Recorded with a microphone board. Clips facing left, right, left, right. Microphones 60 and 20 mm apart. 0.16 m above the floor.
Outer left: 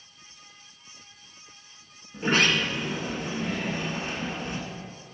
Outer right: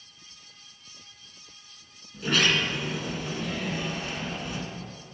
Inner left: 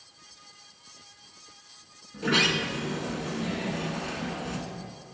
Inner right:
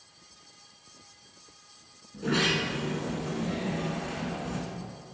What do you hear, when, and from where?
2.1 s a sliding door: 35° left (ahead or behind), 1.5 m